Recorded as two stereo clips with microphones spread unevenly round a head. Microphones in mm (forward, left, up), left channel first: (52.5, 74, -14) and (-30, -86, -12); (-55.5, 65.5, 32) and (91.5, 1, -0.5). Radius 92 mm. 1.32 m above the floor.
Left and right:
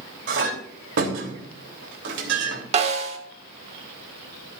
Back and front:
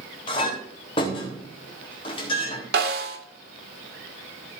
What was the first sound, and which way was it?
A clink, 140° right.